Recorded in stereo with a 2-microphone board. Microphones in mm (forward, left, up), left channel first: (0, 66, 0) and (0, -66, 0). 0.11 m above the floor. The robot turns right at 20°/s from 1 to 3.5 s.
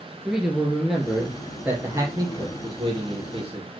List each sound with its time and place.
0.2 s a man speaking: 175° right, 2.5 m; by 3.7 s 125° right, 2.5 m